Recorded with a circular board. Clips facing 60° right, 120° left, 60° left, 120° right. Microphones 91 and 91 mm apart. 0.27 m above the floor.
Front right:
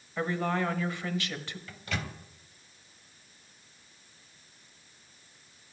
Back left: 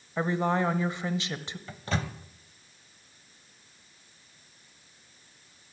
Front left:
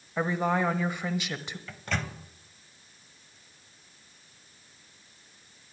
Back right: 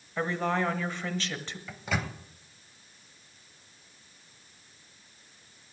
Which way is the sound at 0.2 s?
115° left.